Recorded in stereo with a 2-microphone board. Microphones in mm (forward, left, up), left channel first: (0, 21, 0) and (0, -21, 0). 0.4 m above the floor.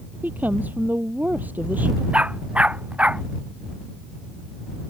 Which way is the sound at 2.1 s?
30° right (ahead or behind).